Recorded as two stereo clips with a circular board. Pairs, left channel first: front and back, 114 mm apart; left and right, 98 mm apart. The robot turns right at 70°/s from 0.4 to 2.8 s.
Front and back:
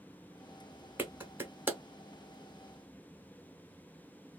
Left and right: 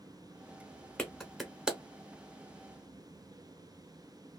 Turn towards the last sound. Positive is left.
turn(degrees=-80)